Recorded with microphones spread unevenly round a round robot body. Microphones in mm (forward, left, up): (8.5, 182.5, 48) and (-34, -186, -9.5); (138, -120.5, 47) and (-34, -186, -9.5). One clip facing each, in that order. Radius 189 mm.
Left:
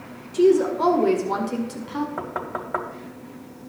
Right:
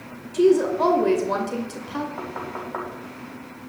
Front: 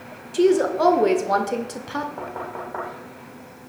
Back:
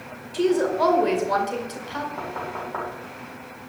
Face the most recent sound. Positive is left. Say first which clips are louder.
# left 1 dB, even
turn(degrees=115)